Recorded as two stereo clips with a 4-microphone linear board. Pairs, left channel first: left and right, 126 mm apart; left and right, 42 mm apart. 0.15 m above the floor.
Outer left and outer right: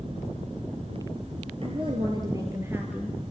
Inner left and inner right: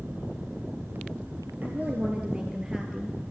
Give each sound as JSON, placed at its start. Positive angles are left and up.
{"t": 1.6, "sound": "a woman speaking", "side_deg": -50, "distance_m": 2.5}